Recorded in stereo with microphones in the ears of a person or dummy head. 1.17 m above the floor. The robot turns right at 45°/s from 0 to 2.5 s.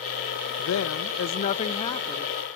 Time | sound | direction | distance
0.6 | a woman speaking | 90° left | 0.7 m